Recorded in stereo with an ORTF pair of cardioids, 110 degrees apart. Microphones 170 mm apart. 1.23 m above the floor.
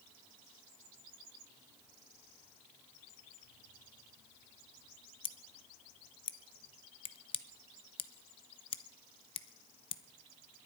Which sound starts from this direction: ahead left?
Scissors, at 5.2 s.